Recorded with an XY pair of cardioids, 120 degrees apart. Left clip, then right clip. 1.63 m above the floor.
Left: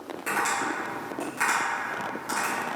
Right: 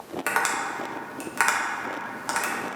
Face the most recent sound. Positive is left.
turn(degrees=-60)